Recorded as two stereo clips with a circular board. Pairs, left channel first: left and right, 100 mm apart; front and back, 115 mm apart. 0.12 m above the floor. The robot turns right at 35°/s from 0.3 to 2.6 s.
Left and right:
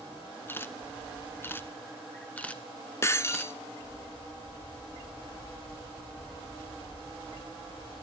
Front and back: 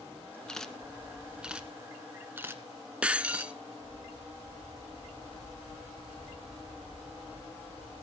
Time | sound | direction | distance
0.5 | a camera shutter | 75° left | 1.0 m
3.0 | breaking glass | 110° left | 0.6 m